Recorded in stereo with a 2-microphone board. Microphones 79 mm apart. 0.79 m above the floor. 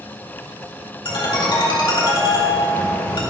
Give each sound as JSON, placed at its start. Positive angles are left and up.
{"t": 1.1, "sound": "a ringtone", "side_deg": 75, "distance_m": 2.0}